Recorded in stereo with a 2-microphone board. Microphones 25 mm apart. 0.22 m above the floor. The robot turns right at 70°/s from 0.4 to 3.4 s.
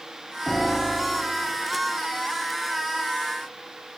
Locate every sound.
0.5 s a piano: 165° left, 2.5 m; by 1.6 s 115° right, 2.5 m